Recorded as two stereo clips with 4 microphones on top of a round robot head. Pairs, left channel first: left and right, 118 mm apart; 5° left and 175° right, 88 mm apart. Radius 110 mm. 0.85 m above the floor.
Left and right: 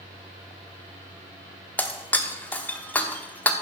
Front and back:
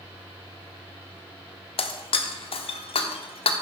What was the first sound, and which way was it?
Breaking glass, 15° left.